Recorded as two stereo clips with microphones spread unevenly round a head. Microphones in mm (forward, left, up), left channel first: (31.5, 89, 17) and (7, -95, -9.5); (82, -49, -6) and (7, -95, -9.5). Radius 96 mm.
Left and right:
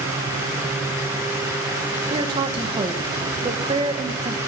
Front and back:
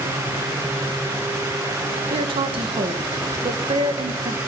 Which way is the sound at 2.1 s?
165° right.